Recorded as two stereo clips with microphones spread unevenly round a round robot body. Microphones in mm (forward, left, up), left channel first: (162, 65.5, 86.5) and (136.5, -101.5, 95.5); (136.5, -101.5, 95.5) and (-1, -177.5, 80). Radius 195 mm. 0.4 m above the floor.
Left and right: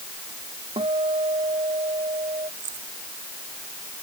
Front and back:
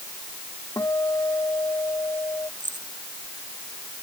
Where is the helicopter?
No helicopter in this recording.